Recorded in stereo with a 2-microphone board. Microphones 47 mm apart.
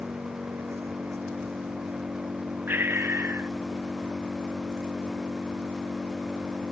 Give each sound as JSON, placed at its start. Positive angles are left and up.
{"t": 0.0, "sound": "an engine running", "side_deg": -85}
{"t": 2.7, "sound": "breathing", "side_deg": -55}